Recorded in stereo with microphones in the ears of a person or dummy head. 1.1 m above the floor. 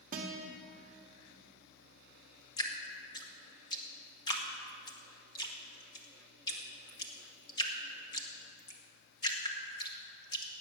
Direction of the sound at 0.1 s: 40° right (ahead or behind).